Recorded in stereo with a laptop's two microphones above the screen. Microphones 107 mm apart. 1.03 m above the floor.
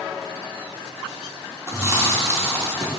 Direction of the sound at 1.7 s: 25° right (ahead or behind).